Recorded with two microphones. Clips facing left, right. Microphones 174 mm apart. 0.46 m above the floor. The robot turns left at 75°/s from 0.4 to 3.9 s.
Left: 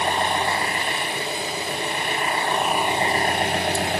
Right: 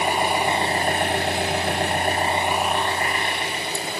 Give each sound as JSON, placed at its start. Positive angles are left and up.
{"t": 0.0, "sound": "an engine running", "azimuth_deg": -10, "distance_m": 1.8}